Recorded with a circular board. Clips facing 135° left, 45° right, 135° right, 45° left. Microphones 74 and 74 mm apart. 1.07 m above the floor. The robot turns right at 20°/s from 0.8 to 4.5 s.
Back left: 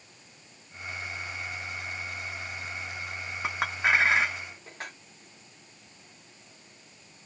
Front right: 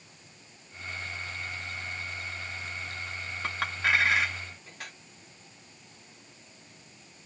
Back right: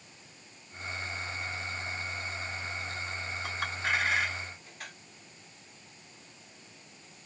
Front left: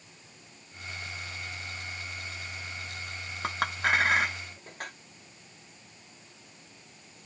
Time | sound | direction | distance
3.4 | a clink | 60° left | 1.0 m